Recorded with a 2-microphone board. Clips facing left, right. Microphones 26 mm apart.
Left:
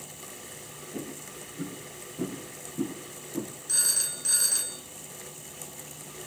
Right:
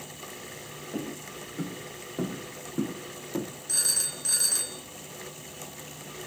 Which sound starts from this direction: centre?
A phone ringing, at 3.7 s.